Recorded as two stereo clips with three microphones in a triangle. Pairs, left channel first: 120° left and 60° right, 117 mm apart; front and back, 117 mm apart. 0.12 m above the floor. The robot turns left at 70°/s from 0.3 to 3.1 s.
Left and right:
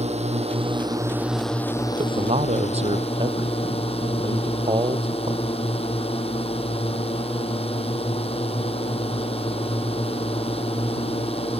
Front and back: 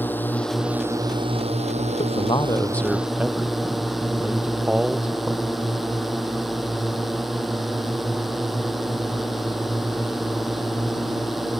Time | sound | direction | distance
0.0 | a drone | 70° right | ?
2.0 | a man speaking | 25° right | ?